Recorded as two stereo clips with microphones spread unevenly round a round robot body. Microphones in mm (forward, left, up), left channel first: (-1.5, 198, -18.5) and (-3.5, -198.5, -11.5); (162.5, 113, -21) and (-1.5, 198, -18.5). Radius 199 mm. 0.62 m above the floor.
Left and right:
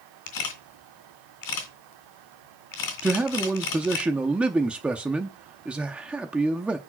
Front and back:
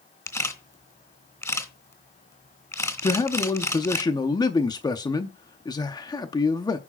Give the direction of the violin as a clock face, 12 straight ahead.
No violin in this recording.